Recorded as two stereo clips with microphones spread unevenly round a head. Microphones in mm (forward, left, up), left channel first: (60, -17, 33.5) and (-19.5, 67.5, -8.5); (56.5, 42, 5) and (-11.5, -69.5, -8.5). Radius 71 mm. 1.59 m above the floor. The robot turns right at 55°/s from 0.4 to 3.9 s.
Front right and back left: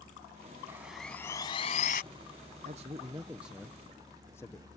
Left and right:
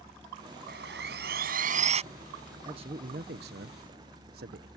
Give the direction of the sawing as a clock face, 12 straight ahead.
5 o'clock.